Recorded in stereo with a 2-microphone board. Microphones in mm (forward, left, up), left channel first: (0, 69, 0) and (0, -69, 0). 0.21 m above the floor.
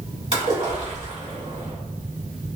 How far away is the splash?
About 1.9 m.